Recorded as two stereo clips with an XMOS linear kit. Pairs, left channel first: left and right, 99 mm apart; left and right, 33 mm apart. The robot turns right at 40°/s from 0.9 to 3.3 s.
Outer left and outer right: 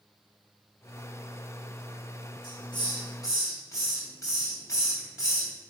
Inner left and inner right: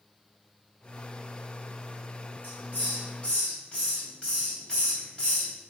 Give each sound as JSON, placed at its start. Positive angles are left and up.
{"t": 2.4, "sound": "a hiss", "azimuth_deg": 110, "distance_m": 2.5}